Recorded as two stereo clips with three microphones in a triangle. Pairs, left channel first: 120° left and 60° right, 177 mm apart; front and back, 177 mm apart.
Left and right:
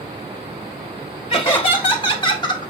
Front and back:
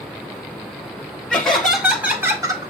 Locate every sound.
1.3 s laughter: 80° left, 1.3 m; by 2.7 s 150° left, 1.0 m